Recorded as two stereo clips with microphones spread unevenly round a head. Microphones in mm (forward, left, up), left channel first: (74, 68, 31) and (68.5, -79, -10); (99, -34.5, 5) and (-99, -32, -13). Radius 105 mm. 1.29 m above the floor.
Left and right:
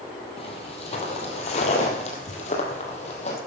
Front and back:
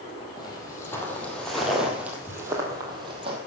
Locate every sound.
0.4 s footsteps: 65° left, 2.5 m; by 3.4 s 115° left, 2.5 m